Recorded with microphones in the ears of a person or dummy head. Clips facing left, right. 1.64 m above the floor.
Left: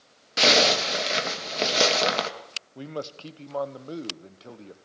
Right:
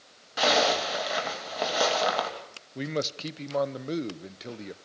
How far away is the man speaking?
About 1.1 m.